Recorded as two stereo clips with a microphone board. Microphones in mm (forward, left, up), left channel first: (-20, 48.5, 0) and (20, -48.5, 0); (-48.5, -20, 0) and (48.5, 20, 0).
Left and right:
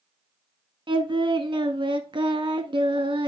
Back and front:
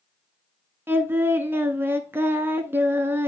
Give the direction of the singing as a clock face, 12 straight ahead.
1 o'clock.